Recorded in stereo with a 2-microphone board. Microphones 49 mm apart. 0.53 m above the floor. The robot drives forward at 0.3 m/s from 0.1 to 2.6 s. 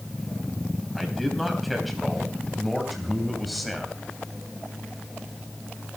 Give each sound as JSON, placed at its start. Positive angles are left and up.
{"t": 0.9, "sound": "a man speaking", "side_deg": 0, "distance_m": 4.0}